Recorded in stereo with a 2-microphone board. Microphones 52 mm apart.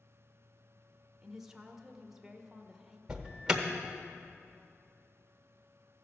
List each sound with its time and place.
1.2 s a woman speaking: 5° right (ahead or behind), 0.9 m
3.1 s an alarm: 15° right (ahead or behind), 1.0 m